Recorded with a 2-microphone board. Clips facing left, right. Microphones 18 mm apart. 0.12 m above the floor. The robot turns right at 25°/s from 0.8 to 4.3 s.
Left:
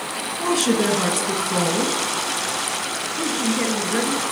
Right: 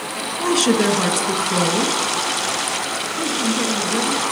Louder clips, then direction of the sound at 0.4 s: Right 3 dB; 25° right (ahead or behind).